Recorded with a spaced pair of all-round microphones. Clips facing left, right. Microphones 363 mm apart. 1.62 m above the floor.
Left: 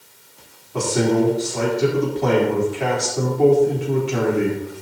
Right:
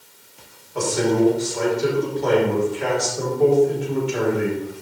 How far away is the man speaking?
About 4 m.